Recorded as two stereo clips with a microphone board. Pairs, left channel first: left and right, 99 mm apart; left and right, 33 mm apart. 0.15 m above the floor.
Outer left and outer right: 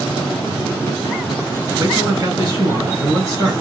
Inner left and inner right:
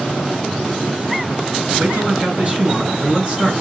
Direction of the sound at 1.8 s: 40° right (ahead or behind).